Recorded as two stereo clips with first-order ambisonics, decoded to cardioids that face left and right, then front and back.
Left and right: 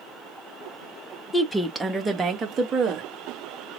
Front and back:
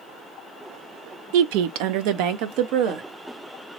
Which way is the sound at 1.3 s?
170° left.